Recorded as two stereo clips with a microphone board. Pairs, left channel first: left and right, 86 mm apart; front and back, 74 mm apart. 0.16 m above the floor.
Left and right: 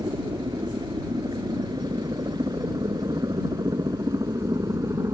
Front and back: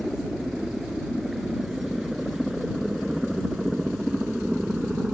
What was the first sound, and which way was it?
A helicopter, 95° right.